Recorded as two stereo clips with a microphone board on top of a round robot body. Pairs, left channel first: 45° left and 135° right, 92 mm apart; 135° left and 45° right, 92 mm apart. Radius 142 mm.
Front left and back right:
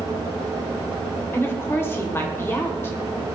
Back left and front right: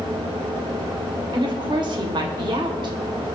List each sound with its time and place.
1.3 s a woman speaking: 15° right, 2 m